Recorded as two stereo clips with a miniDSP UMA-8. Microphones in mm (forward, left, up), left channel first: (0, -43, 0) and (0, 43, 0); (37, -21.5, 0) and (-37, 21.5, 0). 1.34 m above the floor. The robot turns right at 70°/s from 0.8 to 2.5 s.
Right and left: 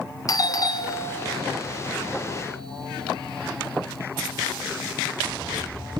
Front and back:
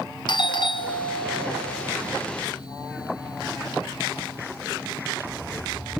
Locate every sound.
0.3 s a doorbell: 50° right, 1.1 m; by 6.0 s 70° left, 1.1 m